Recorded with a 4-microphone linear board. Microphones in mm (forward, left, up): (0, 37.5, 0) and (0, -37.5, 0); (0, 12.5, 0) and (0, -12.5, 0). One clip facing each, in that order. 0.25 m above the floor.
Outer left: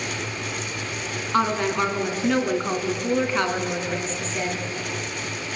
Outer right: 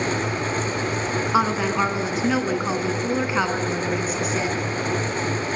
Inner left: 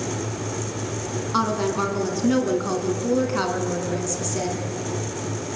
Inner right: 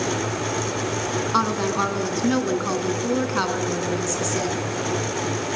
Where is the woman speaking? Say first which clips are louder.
Even, even; 10° right (ahead or behind), 2 m.